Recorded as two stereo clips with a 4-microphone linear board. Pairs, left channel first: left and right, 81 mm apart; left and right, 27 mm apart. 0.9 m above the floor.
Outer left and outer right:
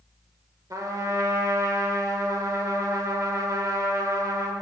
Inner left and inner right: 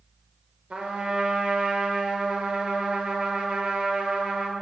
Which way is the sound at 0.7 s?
45° right (ahead or behind).